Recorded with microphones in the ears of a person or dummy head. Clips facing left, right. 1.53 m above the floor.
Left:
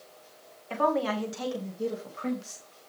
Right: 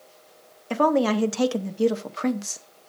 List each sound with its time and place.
0.7 s a woman speaking: 55° right (ahead or behind), 1.1 m; by 2.6 s 65° right (ahead or behind), 1.0 m